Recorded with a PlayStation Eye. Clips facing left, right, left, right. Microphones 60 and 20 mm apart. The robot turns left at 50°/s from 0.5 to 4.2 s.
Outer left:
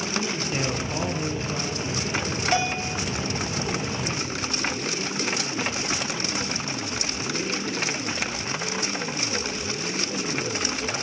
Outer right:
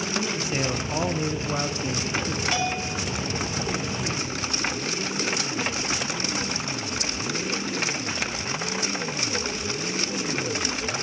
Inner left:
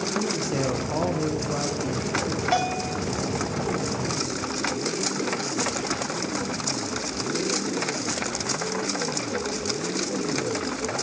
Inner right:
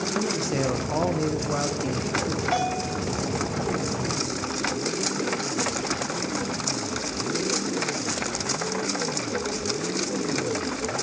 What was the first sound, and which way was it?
A man speaking, 10° right.